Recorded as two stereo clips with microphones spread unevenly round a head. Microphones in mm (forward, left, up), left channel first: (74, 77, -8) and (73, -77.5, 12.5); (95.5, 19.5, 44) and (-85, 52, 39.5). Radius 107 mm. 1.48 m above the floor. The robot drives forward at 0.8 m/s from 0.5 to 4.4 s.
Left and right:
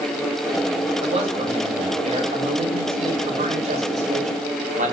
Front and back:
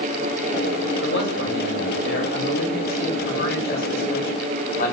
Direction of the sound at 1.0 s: 40° right.